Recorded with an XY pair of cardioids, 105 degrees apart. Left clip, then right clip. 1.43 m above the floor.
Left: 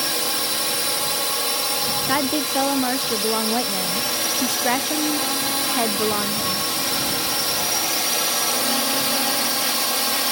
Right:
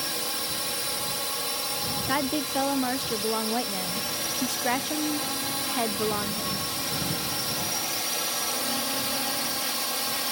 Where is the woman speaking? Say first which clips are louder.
Left 3 dB; 30° left.